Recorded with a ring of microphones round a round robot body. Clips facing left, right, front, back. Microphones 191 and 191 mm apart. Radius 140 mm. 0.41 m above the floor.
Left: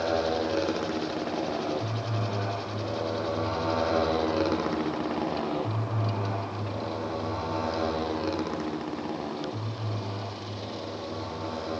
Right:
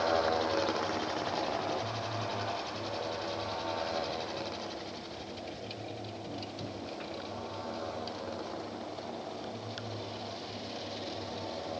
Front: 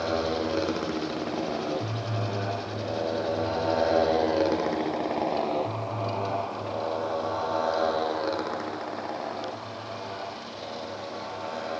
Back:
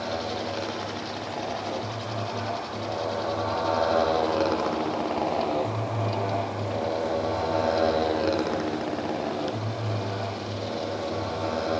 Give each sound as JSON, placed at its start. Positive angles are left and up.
{"t": 0.0, "sound": "a motorcycle", "azimuth_deg": 35}